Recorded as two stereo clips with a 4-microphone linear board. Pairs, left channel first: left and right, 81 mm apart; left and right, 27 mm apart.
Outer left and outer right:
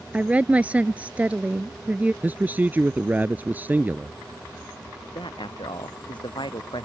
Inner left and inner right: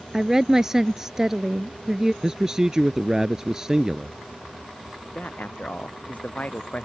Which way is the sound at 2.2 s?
20° right (ahead or behind).